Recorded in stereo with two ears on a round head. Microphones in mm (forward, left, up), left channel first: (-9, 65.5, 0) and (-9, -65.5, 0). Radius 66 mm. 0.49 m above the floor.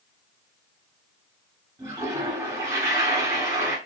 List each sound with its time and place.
1.8 s a toilet flushing: 20° right (ahead or behind), 0.8 m